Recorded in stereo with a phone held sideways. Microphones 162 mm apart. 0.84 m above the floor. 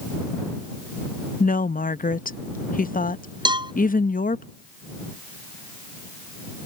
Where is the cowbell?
30° right (ahead or behind).